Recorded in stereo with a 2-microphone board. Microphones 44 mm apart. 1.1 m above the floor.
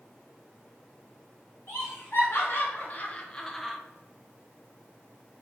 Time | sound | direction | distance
1.7 | laughter | 70° left (ahead or behind) | 1.1 m